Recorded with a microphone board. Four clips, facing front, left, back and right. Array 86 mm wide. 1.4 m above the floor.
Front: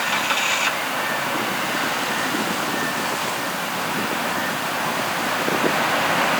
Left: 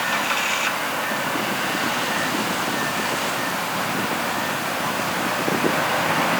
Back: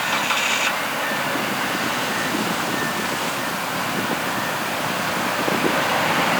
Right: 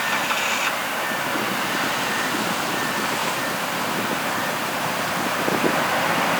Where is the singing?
I don't hear singing.